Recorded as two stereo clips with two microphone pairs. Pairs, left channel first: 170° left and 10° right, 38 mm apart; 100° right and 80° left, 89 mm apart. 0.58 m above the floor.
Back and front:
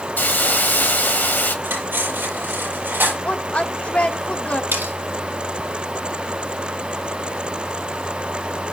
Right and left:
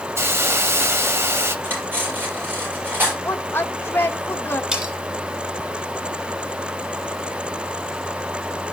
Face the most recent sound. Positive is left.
turn(degrees=0)